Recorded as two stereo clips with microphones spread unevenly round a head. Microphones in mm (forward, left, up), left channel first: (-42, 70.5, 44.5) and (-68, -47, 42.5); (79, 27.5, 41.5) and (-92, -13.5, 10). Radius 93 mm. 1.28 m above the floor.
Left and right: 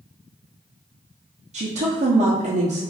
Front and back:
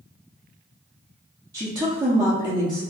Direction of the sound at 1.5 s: 105° right.